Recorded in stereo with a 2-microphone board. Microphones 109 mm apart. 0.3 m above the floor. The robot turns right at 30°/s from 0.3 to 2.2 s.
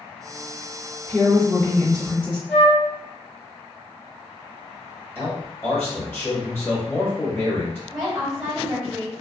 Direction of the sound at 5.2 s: 20° left (ahead or behind).